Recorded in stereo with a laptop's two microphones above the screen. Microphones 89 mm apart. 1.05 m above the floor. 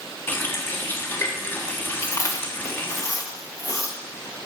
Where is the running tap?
20° left (ahead or behind), 1.1 m.